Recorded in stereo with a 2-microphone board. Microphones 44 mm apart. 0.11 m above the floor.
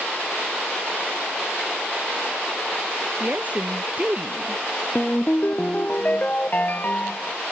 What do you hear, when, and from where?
3.2 s a woman speaking: 35° right (ahead or behind)
5.0 s a ringtone: 35° left (ahead or behind)